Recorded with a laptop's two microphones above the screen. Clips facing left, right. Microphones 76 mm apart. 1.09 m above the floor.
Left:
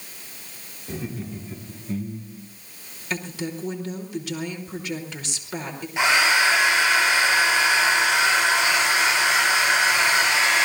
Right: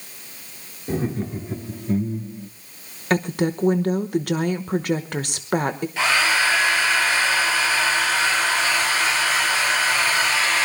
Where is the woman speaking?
55° right (ahead or behind), 1.1 m.